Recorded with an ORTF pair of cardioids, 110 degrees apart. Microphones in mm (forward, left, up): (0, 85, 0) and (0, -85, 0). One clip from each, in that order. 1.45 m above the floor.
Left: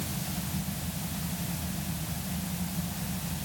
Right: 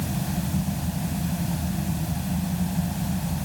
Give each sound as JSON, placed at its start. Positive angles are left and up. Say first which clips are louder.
{"t": 0.0, "sound": "a fan", "louder": "right 5 dB", "azimuth_deg": -50}